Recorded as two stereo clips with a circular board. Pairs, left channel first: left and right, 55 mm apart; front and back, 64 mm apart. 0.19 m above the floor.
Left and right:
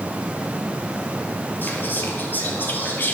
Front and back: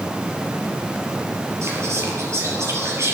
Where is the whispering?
140° left, 5 m.